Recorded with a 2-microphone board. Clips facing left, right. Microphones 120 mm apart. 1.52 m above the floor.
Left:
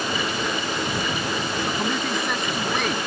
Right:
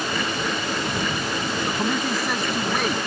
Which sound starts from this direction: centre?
A man speaking, at 1.7 s.